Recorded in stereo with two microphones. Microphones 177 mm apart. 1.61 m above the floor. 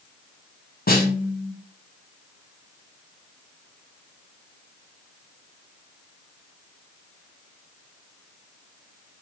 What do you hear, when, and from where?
0.9 s a snare drum: 60° left (ahead or behind), 1.1 m